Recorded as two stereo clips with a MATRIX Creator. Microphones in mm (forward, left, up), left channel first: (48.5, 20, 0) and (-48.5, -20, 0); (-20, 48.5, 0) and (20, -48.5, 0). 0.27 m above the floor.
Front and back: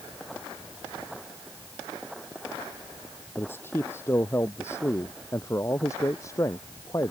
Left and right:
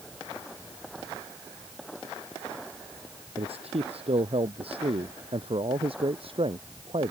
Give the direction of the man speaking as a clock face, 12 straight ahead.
2 o'clock.